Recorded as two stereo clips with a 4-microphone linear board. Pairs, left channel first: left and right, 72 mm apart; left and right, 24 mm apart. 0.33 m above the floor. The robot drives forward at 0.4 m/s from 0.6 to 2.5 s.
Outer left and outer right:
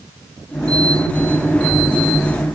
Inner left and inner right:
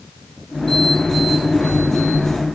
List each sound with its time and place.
Only background noise.